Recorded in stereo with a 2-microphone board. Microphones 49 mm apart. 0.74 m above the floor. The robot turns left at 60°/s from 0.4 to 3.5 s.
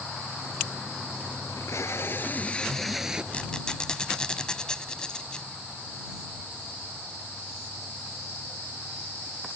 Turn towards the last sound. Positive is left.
turn(degrees=20)  # may be behind; listen again after turning